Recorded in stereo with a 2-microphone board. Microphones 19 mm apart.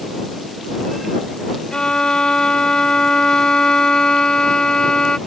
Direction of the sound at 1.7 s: 50° left (ahead or behind).